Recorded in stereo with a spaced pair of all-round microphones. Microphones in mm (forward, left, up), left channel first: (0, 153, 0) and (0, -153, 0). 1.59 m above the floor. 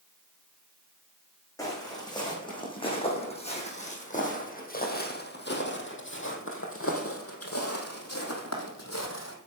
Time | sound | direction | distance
1.6 | footsteps | 10° left (ahead or behind) | 4 m